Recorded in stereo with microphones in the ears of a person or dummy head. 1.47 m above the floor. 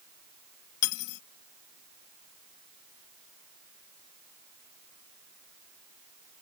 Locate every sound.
0.8 s cutlery clinking: 60° left (ahead or behind)